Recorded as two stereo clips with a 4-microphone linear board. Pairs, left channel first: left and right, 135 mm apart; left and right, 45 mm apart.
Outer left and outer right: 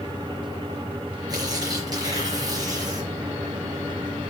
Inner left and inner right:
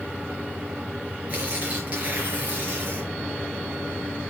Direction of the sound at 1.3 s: 30° right (ahead or behind).